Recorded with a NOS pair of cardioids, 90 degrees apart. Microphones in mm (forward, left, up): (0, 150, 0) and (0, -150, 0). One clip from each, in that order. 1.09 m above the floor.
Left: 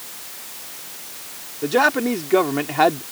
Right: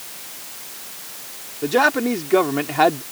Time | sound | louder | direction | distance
1.6 | a man speaking | even | straight ahead | ?